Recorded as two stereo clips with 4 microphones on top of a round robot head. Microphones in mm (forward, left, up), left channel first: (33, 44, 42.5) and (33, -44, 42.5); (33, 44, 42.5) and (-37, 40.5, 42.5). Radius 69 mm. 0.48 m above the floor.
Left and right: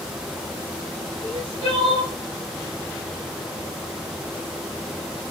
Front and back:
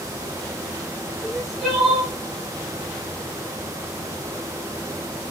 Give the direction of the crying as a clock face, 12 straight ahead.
9 o'clock.